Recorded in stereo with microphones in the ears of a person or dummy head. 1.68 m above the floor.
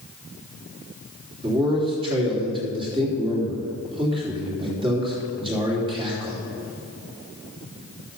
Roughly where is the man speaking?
Right.